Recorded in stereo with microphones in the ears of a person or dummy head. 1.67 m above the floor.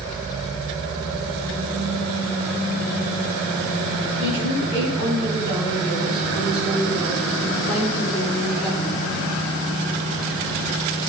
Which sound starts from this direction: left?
A woman speaking, at 4.2 s.